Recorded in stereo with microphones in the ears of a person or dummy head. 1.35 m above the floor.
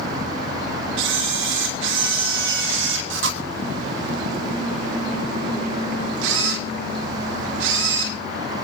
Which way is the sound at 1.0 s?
80° right.